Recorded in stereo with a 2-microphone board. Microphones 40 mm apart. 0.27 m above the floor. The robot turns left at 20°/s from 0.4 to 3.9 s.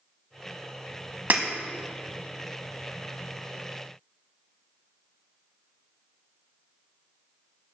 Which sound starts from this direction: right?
Breaking glass, at 1.3 s.